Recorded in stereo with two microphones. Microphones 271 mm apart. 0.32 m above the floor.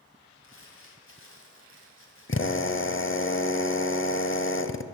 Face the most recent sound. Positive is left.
turn(degrees=45)  # may be behind; listen again after turning